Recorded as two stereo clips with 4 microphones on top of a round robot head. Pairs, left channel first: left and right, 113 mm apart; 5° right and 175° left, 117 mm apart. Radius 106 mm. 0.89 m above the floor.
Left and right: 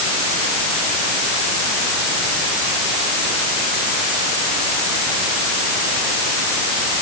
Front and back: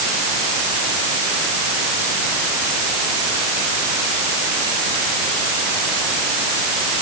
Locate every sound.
Only background noise.